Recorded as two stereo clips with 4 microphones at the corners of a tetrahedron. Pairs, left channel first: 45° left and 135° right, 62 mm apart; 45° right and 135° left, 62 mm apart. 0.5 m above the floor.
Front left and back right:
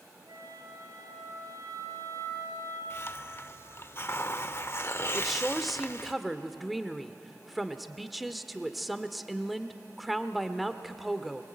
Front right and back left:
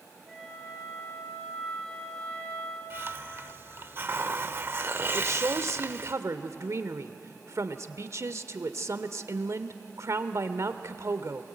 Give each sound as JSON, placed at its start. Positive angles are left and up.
{"t": 0.3, "sound": "a flute", "azimuth_deg": -125, "distance_m": 9.5}
{"t": 2.9, "sound": "a hiss", "azimuth_deg": 90, "distance_m": 0.7}
{"t": 5.1, "sound": "a woman speaking", "azimuth_deg": 135, "distance_m": 1.1}